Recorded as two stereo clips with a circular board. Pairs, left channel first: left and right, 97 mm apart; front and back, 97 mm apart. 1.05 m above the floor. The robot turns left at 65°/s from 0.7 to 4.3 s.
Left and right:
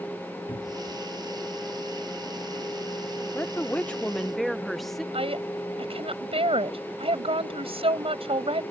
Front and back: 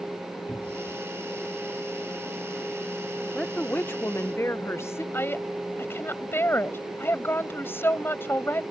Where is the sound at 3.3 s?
65° left; by 5.0 s 5° left.